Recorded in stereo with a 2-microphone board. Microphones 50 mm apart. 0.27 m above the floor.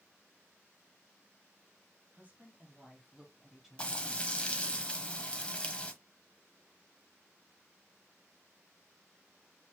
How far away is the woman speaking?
About 1.5 m.